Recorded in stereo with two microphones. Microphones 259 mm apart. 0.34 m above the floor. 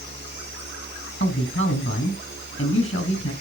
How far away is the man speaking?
About 3 m.